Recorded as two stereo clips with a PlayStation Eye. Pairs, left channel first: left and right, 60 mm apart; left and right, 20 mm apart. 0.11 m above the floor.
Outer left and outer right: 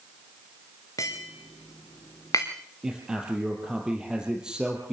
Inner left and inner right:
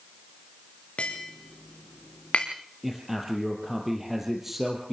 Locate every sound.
1.0 s tapping: 80° left, 4 m
2.8 s a man speaking: 15° right (ahead or behind), 3 m